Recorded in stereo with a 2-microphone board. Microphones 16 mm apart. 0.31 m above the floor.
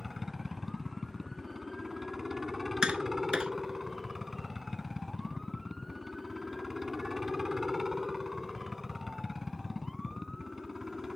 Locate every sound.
0.0 s a helicopter: 25° right (ahead or behind)
2.8 s tapping: 70° right (ahead or behind)